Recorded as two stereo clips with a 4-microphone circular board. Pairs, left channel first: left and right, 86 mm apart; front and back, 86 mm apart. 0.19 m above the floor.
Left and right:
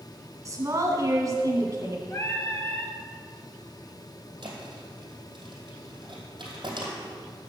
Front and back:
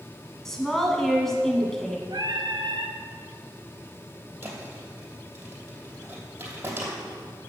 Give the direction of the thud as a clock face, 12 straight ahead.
4 o'clock.